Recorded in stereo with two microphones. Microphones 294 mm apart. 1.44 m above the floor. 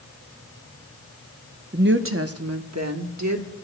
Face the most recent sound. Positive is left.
turn(degrees=-70)  # may be behind; listen again after turning